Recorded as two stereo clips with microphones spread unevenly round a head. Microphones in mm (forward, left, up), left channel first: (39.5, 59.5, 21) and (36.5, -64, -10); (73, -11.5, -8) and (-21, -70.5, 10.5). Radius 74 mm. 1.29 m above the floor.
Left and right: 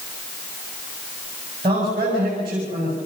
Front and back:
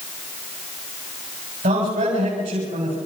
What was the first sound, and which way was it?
A man speaking, 155° right.